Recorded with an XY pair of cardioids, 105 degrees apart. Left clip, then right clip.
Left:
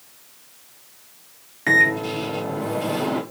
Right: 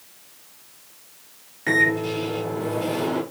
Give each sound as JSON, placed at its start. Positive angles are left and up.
{"t": 1.7, "sound": "a microwave", "azimuth_deg": 30, "distance_m": 1.7}